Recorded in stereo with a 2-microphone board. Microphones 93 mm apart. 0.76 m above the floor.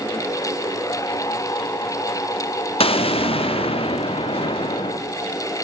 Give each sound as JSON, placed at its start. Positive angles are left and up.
{"t": 2.8, "sound": "an explosion", "side_deg": 85, "distance_m": 0.5}